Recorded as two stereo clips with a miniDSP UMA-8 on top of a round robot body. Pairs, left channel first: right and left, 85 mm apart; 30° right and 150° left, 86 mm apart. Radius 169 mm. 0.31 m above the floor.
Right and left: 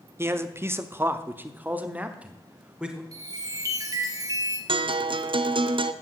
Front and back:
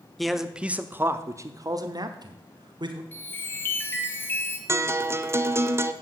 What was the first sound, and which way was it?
A man speaking, 55° left.